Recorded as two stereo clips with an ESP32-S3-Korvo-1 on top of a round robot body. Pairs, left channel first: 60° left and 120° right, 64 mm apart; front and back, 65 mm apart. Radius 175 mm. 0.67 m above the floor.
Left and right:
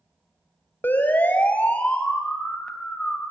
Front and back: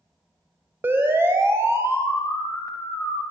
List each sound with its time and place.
0.8 s a siren: 120° left, 4.5 m; by 3.2 s 140° left, 7 m